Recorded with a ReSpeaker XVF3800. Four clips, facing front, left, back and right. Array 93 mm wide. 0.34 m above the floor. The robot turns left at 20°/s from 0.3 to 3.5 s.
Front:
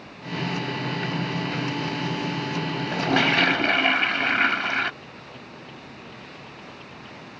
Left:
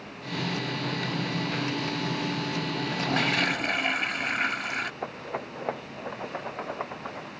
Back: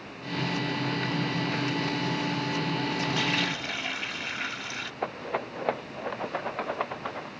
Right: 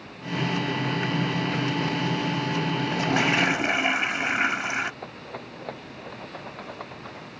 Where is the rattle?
155° left.